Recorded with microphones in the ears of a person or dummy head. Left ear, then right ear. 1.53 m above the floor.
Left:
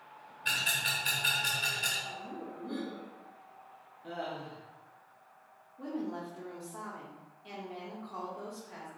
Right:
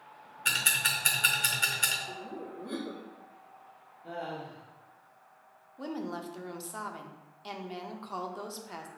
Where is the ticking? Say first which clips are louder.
Right 3 dB; 35° right (ahead or behind), 0.9 m.